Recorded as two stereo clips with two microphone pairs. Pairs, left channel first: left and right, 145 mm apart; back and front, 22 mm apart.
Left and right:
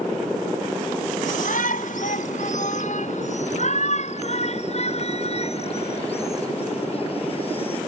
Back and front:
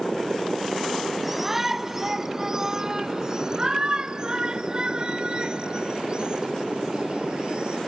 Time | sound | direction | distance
1.2 | a shout | 75° left | ?